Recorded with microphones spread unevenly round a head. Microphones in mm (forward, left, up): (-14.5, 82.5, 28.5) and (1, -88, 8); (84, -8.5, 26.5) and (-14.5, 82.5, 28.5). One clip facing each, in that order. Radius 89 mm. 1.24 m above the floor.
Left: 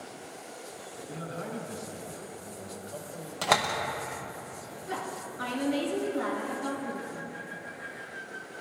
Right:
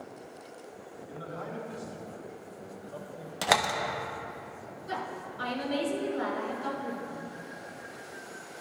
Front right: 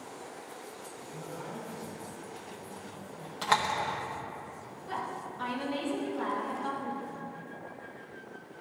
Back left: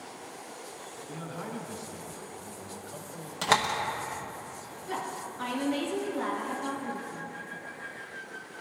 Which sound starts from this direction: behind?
A door slam, at 3.4 s.